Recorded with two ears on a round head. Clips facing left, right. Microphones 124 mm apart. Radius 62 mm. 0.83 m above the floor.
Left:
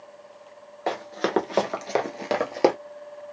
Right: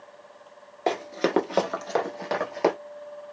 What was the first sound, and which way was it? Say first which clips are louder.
Running footsteps: right 2 dB; 25° right (ahead or behind).